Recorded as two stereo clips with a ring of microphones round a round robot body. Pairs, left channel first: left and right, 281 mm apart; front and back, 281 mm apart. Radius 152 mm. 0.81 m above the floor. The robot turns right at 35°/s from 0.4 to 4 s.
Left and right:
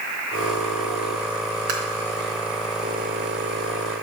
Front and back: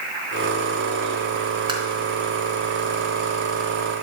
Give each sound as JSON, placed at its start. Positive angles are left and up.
{"t": 1.7, "sound": "tapping", "azimuth_deg": -105, "distance_m": 3.5}